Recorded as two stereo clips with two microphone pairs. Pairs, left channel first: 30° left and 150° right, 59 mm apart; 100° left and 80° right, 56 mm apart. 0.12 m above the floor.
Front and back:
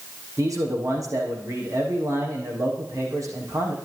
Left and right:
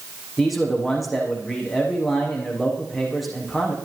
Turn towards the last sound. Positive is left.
turn(degrees=-170)